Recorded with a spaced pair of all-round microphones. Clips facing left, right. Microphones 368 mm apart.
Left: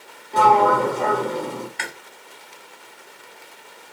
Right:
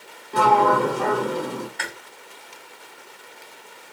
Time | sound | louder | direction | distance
0.3 | a sliding door | left 1 dB | 20° right (ahead or behind) | 0.5 m
1.8 | chewing | even | 35° left (ahead or behind) | 0.8 m